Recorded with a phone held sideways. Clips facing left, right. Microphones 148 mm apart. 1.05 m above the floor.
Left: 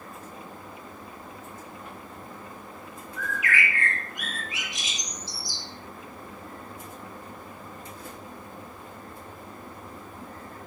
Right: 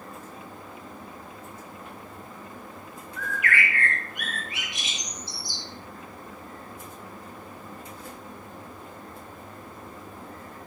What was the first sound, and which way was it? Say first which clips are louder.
A bird: right 1 dB; 60° right (ahead or behind).